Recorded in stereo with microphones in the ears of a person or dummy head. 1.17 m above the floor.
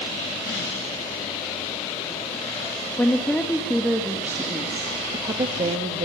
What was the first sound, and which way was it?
A woman speaking, 10° left (ahead or behind).